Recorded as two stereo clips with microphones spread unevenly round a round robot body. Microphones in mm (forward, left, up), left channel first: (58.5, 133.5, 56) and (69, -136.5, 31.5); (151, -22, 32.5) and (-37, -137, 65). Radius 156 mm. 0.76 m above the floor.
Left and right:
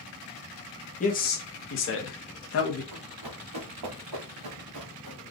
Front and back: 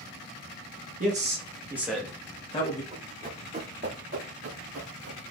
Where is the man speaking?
155° left, 1.3 m; by 2.8 s 75° left, 1.3 m.